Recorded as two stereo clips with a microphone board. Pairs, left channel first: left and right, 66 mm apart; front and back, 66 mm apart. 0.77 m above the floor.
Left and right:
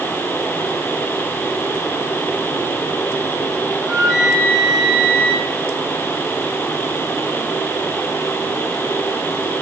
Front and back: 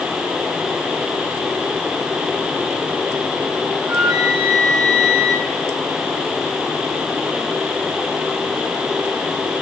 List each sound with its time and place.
3.8 s a flute: 95° right, 4 m